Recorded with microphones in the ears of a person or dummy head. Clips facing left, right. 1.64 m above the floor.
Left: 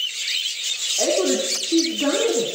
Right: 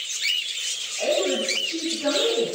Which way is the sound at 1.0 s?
75° left (ahead or behind).